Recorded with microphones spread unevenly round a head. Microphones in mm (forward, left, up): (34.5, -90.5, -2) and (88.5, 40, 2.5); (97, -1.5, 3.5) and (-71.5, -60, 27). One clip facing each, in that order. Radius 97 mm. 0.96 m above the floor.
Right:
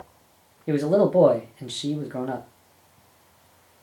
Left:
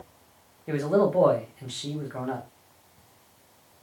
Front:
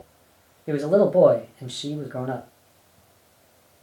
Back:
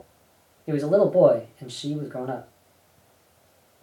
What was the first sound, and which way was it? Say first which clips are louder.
A man speaking: right 3 dB, front 1 dB; 55° right.